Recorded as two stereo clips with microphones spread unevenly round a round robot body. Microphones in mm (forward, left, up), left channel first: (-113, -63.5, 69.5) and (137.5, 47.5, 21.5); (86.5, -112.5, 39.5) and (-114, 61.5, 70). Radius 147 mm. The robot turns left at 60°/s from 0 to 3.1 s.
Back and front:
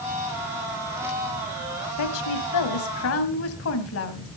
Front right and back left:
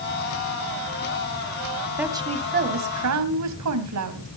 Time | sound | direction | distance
2.0 | a woman speaking | 130° right | 2.5 m